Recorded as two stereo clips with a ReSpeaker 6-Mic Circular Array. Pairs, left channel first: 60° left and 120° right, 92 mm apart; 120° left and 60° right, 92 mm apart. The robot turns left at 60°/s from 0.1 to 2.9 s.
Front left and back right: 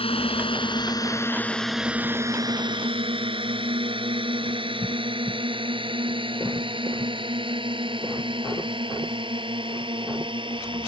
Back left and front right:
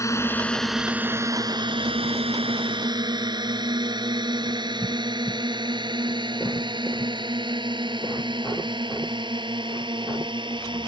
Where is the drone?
65° left; by 10.9 s 90° right.